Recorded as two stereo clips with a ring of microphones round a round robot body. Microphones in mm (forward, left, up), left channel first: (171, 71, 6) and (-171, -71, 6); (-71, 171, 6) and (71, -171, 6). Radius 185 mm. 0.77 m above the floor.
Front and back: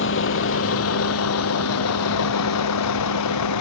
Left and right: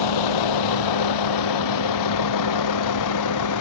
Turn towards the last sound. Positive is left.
turn(degrees=70)